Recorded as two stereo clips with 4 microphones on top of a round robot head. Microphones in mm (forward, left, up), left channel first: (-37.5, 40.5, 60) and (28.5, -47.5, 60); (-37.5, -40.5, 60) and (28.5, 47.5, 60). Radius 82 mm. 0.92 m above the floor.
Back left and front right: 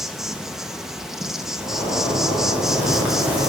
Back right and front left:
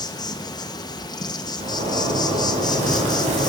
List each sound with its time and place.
0.0 s an insect: 135° right, 1.4 m
1.6 s a zipper: 25° left, 3.5 m